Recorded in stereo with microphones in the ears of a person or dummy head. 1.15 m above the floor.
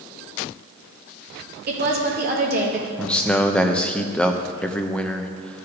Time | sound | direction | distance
1.7 | a woman speaking | 45° right (ahead or behind) | 1.5 m
3.0 | a man speaking | 5° left (ahead or behind) | 0.6 m